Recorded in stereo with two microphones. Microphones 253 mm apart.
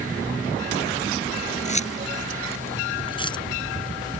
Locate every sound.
1.6 s keys jangling: 30° left (ahead or behind); by 3.4 s 15° left (ahead or behind)